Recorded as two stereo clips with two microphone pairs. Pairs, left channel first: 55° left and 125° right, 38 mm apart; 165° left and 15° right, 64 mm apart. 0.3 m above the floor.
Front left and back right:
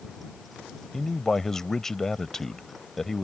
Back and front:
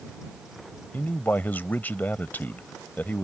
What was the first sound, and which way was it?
A man speaking, 130° left.